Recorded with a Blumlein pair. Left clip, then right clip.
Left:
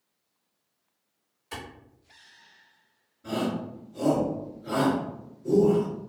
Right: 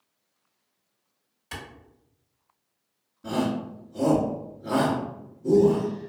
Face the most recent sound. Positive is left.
turn(degrees=-65)